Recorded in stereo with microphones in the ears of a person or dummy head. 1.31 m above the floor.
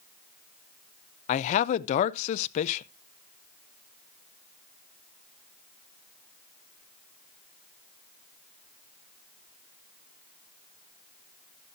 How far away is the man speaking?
About 0.6 m.